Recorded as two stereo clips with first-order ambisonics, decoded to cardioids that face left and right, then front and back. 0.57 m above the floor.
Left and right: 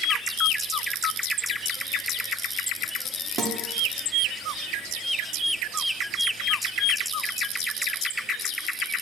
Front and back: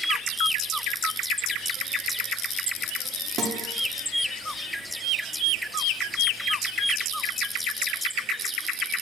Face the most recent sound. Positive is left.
turn(degrees=-135)